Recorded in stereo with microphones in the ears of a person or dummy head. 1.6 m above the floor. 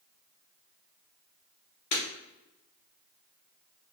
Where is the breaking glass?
30° left (ahead or behind), 1.6 m.